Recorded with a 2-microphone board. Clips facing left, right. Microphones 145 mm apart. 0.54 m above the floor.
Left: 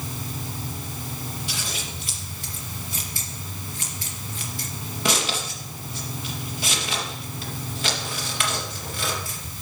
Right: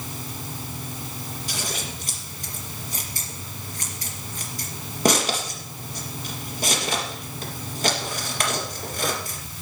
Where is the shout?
No shout in this recording.